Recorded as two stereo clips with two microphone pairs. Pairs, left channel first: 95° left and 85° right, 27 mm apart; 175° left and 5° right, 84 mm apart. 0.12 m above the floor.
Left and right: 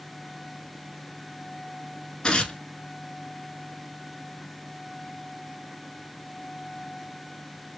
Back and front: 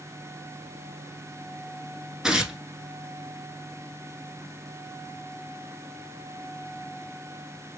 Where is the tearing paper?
75° left, 1.0 m.